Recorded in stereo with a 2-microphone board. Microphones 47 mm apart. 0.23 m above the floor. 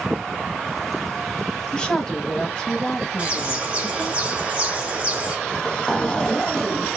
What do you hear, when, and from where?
1.7 s a woman speaking: 20° left (ahead or behind), 1.1 m
3.2 s a bird: 30° right (ahead or behind), 2.0 m
5.5 s a zipper: 15° left (ahead or behind), 0.8 m